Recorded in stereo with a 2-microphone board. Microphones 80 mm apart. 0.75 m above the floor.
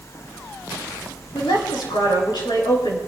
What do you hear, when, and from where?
1.3 s a woman speaking: 80° left, 6.5 m